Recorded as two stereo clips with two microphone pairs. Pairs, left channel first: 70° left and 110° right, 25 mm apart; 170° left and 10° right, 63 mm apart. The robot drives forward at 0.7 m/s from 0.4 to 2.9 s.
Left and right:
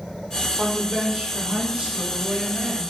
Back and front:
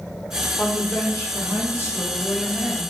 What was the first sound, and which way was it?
A woman speaking, 155° right.